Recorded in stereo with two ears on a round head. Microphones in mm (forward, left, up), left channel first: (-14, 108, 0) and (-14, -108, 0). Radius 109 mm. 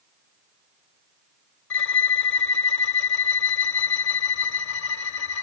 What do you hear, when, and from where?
1.7 s a violin: 50° left (ahead or behind), 0.9 m